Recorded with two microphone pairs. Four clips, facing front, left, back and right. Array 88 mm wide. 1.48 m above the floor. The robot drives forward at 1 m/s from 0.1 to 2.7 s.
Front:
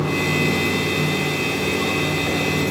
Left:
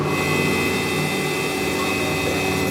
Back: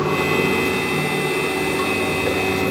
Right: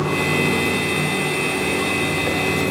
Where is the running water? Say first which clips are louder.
Right 1 dB, back 2 dB; 175° right, 0.7 m; by 2.7 s straight behind, 3 m.